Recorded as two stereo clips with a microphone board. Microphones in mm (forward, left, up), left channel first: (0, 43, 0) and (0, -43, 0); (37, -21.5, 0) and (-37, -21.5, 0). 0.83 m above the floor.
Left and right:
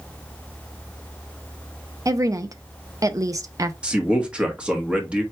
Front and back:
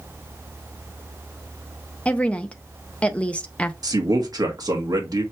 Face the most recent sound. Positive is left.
turn(degrees=-165)